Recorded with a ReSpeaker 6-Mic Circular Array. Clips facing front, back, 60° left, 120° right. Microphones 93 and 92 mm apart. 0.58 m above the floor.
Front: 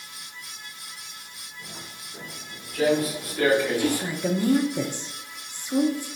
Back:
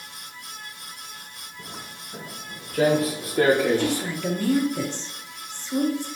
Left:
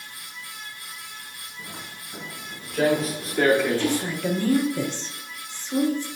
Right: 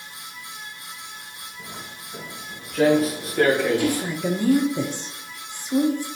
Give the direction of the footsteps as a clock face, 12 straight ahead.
7 o'clock.